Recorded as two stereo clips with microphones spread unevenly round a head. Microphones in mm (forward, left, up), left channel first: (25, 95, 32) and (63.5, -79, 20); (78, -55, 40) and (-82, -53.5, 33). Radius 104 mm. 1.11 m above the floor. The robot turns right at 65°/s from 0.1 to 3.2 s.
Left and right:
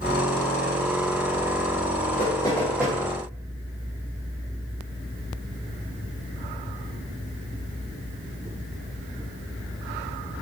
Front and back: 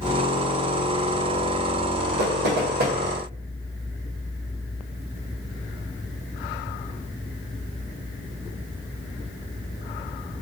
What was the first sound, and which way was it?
Knocking, 160° left.